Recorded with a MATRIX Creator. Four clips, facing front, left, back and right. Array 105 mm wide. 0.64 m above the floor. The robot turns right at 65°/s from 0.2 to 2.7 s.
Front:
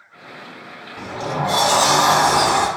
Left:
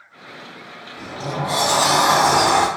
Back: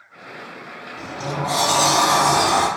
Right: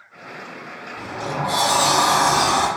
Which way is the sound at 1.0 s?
30° right.